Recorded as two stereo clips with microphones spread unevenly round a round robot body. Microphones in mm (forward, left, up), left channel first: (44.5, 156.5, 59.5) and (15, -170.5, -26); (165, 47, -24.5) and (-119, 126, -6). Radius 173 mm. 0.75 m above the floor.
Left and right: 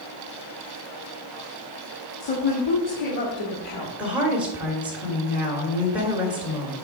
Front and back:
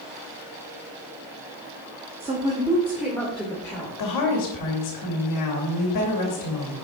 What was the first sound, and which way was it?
A woman speaking, 95° left.